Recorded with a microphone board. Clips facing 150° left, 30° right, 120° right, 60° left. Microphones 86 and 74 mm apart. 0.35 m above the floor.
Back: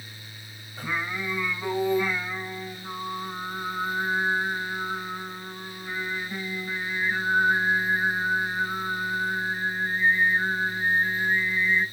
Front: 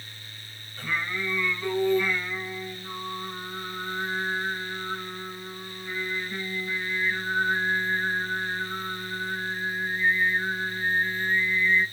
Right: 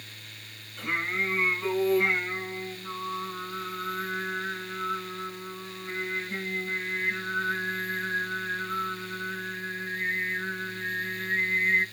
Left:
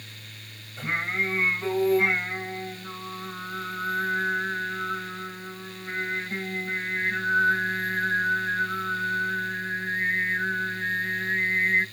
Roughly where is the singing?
Left.